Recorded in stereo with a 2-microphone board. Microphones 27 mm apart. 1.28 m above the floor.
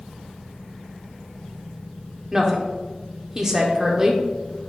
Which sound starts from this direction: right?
A woman speaking, at 2.3 s.